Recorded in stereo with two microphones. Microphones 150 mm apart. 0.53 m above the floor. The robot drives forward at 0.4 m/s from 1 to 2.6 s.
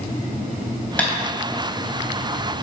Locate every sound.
1.0 s tapping: 10° left (ahead or behind), 4 m